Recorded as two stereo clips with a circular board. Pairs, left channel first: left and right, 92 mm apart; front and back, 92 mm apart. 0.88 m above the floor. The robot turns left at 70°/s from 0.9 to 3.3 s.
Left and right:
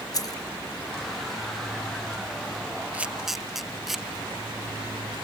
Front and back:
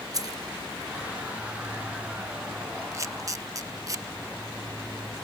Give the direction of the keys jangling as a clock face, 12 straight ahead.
8 o'clock.